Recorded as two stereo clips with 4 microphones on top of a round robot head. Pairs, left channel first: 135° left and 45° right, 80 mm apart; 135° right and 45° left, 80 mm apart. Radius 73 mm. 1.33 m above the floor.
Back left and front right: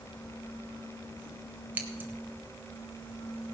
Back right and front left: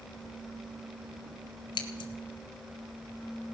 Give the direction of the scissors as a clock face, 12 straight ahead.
4 o'clock.